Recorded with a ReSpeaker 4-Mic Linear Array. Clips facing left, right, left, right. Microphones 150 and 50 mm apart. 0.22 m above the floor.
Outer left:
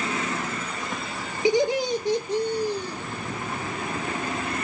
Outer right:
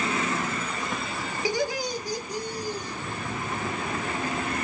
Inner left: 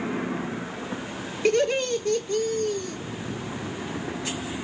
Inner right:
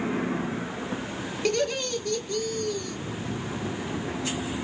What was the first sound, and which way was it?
Laughter, 20° left (ahead or behind).